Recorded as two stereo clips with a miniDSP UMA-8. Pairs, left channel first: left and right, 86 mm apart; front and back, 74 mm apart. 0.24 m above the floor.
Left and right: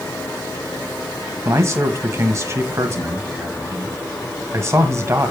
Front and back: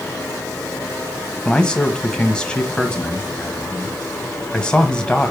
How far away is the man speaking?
About 1.4 m.